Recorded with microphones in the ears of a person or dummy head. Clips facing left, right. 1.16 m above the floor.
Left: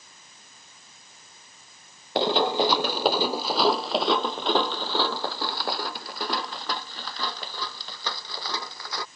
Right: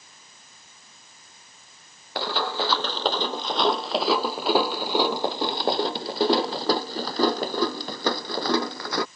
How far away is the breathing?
No breathing in this recording.